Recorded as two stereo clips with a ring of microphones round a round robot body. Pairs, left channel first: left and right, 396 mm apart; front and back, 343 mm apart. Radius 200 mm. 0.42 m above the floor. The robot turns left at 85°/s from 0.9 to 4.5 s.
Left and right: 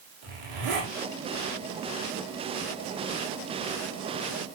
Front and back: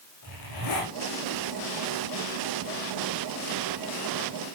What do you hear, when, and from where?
0.2 s a zipper: 55° right, 8.5 m